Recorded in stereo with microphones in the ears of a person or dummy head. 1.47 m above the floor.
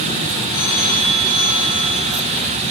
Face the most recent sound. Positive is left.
turn(degrees=50)  # may be behind; listen again after turning